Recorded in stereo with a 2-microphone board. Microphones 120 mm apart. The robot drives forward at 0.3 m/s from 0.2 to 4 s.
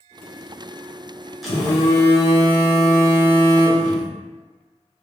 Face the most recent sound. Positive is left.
turn(degrees=0)  # may be behind; listen again after turning